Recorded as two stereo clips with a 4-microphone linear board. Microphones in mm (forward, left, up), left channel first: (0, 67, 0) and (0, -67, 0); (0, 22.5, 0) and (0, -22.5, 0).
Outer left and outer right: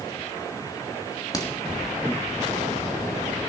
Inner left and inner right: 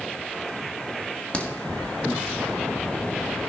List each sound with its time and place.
1.3 s a crack: 30° left (ahead or behind), 1.5 m